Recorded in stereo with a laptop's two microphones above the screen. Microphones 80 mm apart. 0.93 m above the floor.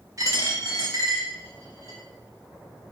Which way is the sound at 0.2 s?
45° right (ahead or behind).